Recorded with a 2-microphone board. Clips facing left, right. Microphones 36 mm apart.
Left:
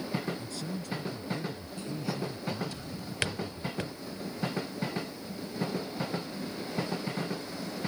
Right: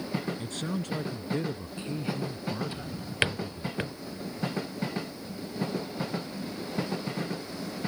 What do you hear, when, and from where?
0.4 s a man speaking: 55° right (ahead or behind); by 3.7 s centre (ahead or behind)
2.7 s a drawer: 25° right (ahead or behind)